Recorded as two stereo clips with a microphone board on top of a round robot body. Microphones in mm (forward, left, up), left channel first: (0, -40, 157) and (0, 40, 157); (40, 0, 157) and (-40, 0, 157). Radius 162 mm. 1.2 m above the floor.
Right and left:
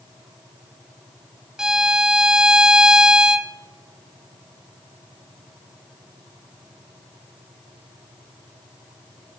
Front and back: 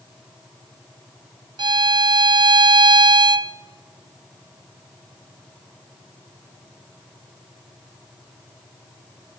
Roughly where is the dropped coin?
I don't hear a dropped coin.